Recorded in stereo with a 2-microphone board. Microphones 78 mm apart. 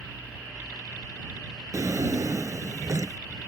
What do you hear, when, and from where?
1.7 s a drawer: 50° right (ahead or behind)